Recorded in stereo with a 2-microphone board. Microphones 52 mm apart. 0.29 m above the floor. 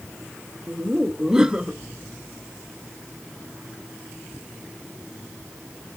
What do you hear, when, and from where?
0.7 s laughter: 15° right (ahead or behind), 1.1 m